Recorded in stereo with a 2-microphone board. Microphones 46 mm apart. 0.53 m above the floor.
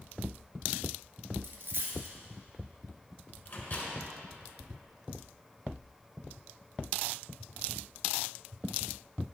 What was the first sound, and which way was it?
A dropped coin, 50° right (ahead or behind).